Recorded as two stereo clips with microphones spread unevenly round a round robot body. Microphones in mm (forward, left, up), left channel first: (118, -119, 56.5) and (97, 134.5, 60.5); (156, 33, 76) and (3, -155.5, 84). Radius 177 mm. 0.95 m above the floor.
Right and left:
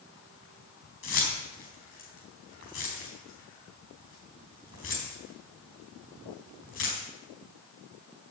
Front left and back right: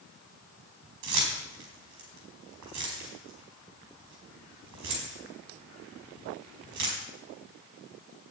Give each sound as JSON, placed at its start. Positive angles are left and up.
{"t": 1.0, "sound": "keys jangling", "azimuth_deg": -140, "distance_m": 4.5}